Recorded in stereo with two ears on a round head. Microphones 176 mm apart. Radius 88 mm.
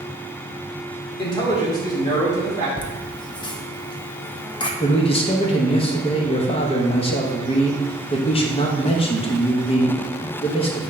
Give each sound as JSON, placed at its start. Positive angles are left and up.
{"t": 1.2, "sound": "a man speaking", "side_deg": 25, "distance_m": 1.4}
{"t": 2.8, "sound": "laughter", "side_deg": 25, "distance_m": 0.7}
{"t": 4.8, "sound": "a man speaking", "side_deg": 30, "distance_m": 0.9}